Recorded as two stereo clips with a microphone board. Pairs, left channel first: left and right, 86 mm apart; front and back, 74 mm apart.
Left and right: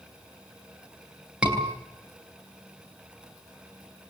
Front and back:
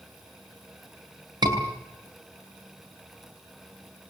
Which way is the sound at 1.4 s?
170° right.